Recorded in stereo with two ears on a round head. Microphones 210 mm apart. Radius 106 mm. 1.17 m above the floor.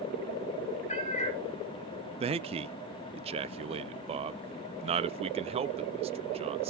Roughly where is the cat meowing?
Left.